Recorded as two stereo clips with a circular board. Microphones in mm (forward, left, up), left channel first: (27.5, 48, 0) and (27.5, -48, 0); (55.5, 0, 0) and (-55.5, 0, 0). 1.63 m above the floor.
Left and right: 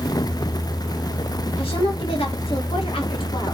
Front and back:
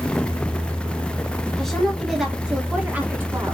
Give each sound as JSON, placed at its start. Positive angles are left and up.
{"t": 1.6, "sound": "a woman speaking", "azimuth_deg": 85, "distance_m": 2.0}